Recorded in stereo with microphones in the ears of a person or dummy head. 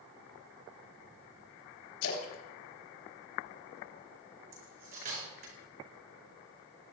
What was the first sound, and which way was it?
A splash, 75° left (ahead or behind).